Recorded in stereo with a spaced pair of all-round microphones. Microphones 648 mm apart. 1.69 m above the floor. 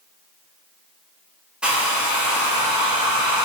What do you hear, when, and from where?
1.6 s a hair dryer: centre (ahead or behind), 0.6 m